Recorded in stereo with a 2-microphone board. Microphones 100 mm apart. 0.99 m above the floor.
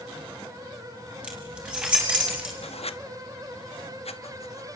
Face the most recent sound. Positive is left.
turn(degrees=85)